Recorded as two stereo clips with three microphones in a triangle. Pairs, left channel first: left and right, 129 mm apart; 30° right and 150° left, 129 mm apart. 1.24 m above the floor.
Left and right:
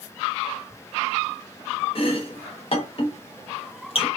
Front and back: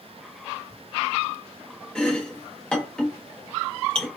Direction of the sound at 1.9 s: 50° left.